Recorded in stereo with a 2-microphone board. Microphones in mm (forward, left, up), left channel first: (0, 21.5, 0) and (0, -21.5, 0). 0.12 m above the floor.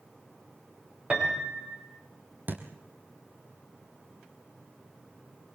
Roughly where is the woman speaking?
I don't hear a woman speaking.